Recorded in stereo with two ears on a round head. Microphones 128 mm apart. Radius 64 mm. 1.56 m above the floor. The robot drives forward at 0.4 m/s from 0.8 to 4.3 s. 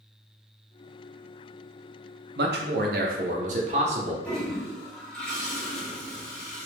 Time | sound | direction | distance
2.4 | a man speaking | 85° right | 0.7 m
4.2 | a toilet flushing | 10° left (ahead or behind) | 1.5 m